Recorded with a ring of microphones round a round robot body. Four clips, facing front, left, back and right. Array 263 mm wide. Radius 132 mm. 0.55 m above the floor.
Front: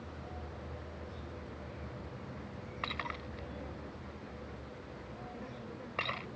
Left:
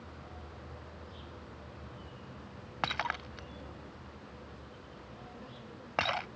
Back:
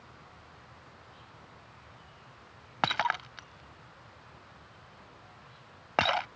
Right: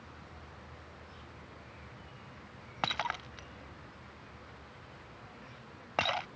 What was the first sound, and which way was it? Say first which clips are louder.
An insect: left 3 dB, front 7 dB; 20° left.